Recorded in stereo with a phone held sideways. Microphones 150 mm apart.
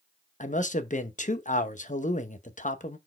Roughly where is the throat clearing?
No throat clearing in this recording.